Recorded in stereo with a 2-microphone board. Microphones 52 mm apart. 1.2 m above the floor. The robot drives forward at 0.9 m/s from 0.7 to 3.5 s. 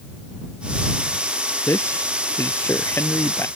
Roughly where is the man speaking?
Left.